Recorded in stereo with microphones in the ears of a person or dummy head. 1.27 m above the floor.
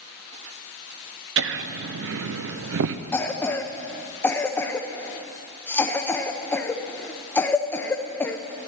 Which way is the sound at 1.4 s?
65° right (ahead or behind).